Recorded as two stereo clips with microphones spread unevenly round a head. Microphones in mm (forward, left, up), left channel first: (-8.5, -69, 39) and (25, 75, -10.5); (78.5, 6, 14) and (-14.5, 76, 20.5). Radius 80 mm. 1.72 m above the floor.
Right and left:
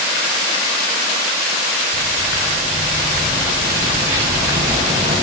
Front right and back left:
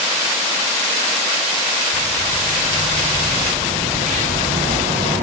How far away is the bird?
About 1.5 m.